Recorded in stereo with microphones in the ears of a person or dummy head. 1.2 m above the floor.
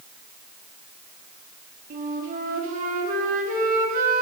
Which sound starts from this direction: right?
A flute, at 1.9 s.